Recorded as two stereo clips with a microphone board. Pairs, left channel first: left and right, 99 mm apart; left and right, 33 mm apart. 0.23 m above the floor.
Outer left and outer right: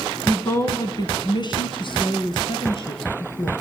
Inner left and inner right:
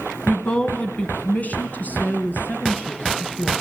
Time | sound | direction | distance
0.3 | a woman speaking | 20° left (ahead or behind) | 2.5 m